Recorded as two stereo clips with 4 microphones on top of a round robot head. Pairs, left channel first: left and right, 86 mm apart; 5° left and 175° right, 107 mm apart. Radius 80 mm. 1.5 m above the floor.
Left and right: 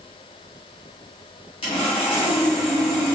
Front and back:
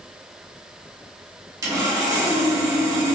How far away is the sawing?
About 1.4 m.